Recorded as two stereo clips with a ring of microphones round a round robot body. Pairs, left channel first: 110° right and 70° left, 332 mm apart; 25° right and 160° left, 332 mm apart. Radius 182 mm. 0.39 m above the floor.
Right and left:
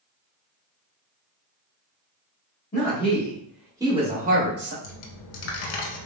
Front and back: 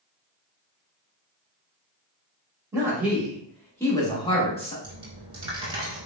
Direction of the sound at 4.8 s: 125° right.